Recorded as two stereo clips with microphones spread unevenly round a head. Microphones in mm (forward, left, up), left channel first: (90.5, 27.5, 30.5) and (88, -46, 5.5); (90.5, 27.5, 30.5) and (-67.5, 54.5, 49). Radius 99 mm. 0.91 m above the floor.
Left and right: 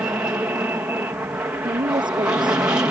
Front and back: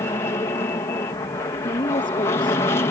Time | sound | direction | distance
0.0 | an aircraft | 60° right | ?
1.6 | a woman speaking | 75° right | ?